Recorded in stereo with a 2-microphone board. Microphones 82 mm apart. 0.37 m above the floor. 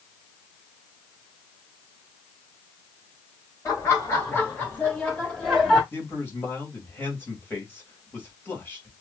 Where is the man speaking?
25° left (ahead or behind), 1.7 m.